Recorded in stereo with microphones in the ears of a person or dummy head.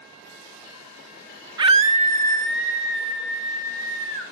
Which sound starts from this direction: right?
A scream, at 1.6 s.